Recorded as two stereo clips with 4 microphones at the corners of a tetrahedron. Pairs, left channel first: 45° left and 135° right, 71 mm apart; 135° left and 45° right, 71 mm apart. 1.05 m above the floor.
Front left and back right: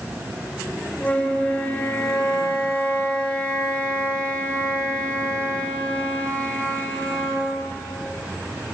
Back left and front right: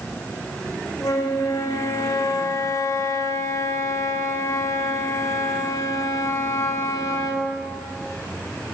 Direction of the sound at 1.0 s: 110° left.